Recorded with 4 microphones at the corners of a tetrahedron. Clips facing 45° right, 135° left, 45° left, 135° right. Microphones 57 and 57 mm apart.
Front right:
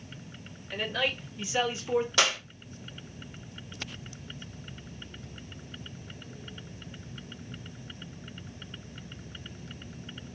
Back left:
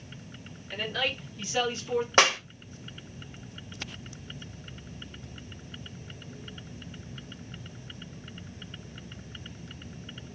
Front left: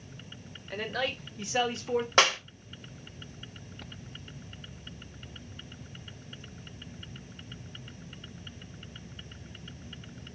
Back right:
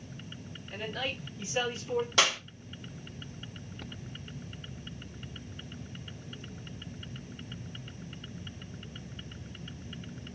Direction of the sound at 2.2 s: 90° left.